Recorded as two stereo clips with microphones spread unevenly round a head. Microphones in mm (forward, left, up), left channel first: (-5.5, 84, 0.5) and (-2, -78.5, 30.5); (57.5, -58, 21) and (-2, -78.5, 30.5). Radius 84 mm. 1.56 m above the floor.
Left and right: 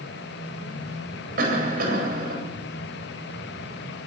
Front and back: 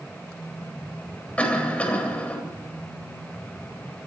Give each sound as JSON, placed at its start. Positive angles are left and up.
{"t": 1.4, "sound": "a cough", "azimuth_deg": -50, "distance_m": 9.0}